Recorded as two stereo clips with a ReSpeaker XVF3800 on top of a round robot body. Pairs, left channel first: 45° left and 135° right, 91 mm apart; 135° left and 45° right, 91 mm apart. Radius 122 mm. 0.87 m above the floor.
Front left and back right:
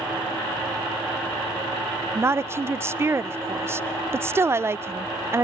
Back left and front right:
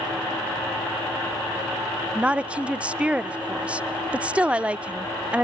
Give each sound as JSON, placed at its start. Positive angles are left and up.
{"t": 2.1, "sound": "a woman speaking", "azimuth_deg": -110, "distance_m": 0.5}